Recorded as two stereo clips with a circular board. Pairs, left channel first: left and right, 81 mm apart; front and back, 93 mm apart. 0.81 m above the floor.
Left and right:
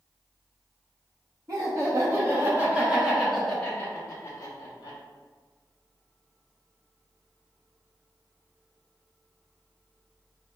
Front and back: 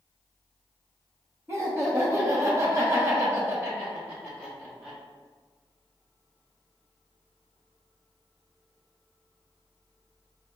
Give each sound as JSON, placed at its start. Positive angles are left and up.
{"t": 1.5, "sound": "laughter", "azimuth_deg": -120, "distance_m": 1.3}